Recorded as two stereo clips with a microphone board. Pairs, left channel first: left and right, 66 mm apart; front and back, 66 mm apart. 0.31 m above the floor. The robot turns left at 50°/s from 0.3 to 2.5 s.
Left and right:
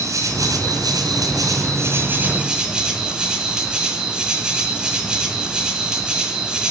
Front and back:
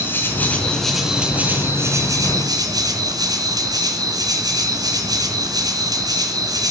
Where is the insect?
55° right, 3 m; by 6.7 s 165° right, 3 m.